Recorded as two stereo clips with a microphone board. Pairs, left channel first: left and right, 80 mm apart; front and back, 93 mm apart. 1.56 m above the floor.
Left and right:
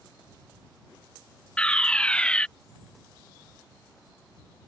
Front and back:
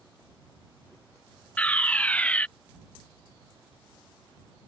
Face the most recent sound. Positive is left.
turn(degrees=40)